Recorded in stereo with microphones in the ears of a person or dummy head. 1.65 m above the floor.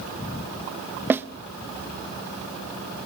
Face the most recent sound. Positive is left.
turn(degrees=-10)  # may be behind; listen again after turning